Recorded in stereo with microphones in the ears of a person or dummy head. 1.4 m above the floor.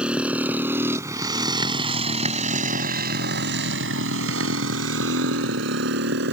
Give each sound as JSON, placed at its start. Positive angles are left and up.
{"t": 0.0, "sound": "a motorcycle", "side_deg": -5}